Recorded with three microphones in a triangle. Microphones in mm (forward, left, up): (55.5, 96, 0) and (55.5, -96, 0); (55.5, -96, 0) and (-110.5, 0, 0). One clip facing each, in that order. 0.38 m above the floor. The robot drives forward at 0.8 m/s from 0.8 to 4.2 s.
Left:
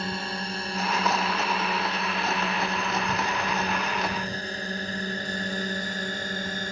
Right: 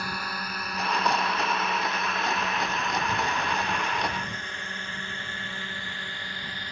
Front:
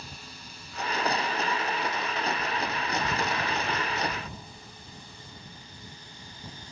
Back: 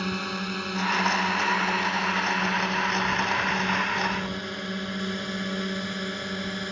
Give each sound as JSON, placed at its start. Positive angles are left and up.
{"t": 0.0, "sound": "a drone", "azimuth_deg": 155}